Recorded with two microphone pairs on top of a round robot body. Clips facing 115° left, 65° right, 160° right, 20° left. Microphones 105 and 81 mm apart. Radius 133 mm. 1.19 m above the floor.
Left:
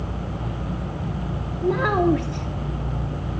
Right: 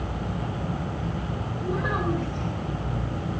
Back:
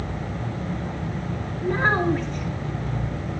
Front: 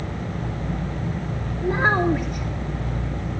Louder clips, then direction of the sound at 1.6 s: Left 8 dB, front 1 dB; 105° left.